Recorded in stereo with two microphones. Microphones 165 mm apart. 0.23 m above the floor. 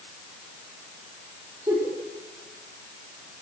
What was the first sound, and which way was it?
A giggle, 25° right (ahead or behind).